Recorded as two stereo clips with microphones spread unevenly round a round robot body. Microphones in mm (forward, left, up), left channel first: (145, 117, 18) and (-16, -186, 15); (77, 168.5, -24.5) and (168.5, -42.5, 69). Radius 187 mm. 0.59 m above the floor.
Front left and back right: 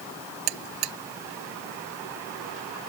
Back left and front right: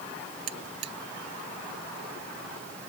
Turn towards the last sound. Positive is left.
turn(degrees=-110)